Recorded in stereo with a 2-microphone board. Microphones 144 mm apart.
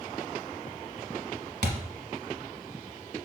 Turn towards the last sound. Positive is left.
turn(degrees=-65)  # may be behind; listen again after turning